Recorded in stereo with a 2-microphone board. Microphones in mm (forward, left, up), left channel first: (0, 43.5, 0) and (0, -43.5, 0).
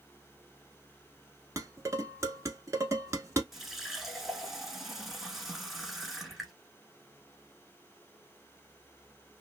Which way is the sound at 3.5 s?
Centre (ahead or behind).